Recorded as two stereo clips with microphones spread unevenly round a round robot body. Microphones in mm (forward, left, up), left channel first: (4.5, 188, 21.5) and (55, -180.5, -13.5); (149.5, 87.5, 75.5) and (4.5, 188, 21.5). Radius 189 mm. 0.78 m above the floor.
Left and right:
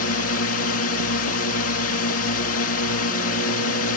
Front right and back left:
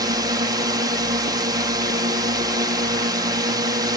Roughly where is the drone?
Behind left.